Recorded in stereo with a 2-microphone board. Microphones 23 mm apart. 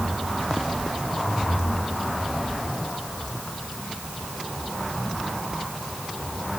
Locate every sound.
Only background noise.